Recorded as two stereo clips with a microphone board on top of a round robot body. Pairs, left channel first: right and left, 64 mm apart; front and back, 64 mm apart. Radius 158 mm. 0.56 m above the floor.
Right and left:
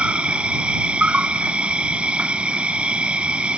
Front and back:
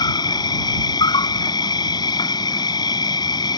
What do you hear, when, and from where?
0.0 s an insect: 15° left